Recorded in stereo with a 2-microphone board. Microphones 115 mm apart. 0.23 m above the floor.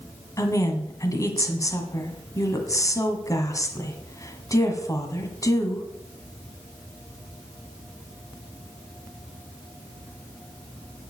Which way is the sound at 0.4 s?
30° left (ahead or behind).